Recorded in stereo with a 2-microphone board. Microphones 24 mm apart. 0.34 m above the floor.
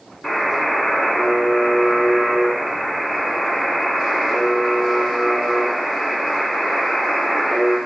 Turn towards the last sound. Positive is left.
turn(degrees=45)  # may be behind; listen again after turning